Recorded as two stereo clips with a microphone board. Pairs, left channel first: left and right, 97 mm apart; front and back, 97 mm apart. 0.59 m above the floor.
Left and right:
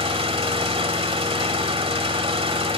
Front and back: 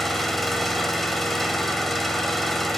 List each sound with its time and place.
0.0 s an engine running: 90° right, 1.4 m